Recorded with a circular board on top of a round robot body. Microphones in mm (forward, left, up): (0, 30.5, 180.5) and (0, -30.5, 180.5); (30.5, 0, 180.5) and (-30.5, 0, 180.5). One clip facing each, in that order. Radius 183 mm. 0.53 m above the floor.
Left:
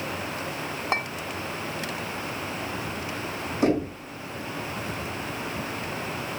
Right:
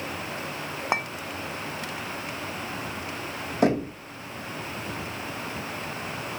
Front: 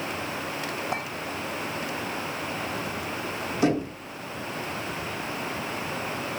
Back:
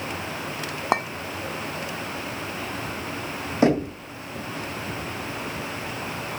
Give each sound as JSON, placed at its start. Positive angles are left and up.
{"t": 0.9, "sound": "a clink", "azimuth_deg": -165, "distance_m": 1.1}
{"t": 3.6, "sound": "knocking", "azimuth_deg": -125, "distance_m": 3.0}